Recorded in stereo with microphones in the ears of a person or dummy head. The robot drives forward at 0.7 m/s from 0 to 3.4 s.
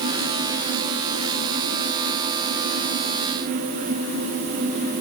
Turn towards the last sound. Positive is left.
No sound to turn to.